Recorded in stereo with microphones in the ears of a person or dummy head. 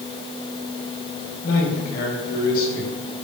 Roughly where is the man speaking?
Left.